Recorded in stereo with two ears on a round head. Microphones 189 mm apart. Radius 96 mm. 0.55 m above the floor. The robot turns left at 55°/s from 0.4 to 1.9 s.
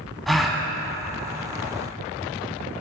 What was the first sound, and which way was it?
A gasp, centre (ahead or behind).